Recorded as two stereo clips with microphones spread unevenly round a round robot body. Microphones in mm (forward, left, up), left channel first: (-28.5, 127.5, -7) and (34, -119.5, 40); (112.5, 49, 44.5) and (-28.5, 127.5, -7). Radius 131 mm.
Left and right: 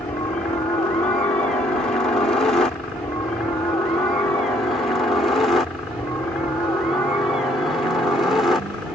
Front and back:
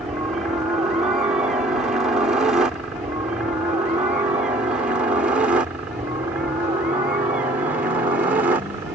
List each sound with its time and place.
0.0 s a helicopter: 150° left; by 9.0 s straight behind